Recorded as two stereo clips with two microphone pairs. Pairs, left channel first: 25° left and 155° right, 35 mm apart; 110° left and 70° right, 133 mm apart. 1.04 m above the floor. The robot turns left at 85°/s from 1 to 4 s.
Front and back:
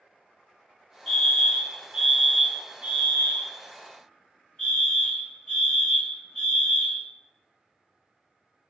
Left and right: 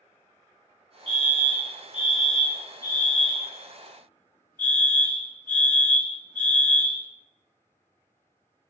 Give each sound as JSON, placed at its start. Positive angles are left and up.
{"t": 1.1, "sound": "a fire alarm", "azimuth_deg": -65, "distance_m": 1.4}